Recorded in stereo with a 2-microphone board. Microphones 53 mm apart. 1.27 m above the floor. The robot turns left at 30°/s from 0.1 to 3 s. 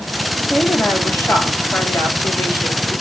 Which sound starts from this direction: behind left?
A woman speaking, at 0.4 s.